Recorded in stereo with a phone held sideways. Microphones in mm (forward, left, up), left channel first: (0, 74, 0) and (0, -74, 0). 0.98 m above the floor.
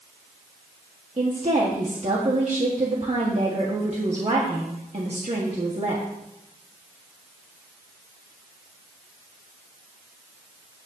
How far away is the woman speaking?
About 1.6 m.